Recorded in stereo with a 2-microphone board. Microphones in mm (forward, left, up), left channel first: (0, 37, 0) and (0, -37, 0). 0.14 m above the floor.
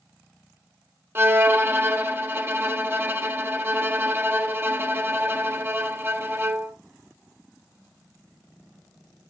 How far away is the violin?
About 0.6 m.